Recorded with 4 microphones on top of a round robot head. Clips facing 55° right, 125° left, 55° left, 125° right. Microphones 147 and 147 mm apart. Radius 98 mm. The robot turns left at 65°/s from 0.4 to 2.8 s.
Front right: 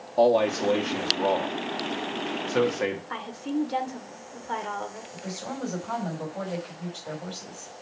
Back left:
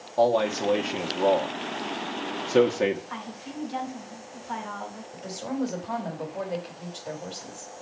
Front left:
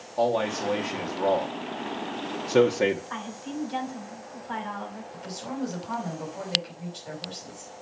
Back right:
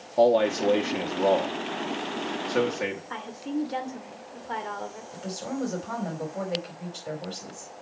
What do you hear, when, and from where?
0.2 s a man speaking: 120° right, 1.1 m; by 3.0 s 80° left, 1.1 m
3.1 s a woman speaking: 85° right, 2 m
5.1 s a woman speaking: 155° right, 4 m